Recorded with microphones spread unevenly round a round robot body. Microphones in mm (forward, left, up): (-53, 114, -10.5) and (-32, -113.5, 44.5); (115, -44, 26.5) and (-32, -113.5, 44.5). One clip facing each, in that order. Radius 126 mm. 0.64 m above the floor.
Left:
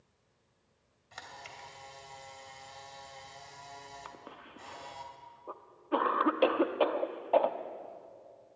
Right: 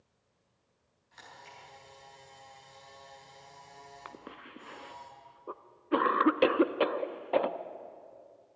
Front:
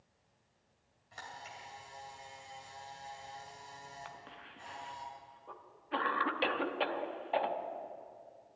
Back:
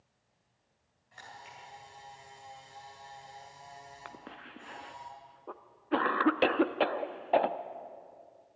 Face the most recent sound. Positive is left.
turn(degrees=-150)